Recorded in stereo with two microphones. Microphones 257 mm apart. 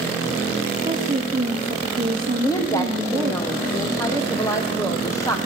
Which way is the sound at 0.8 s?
20° right (ahead or behind).